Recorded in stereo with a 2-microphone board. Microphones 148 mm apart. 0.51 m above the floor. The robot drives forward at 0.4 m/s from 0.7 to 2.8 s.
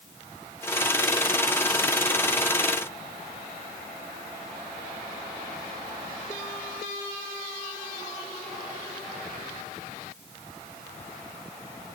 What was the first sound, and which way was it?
Only background noise.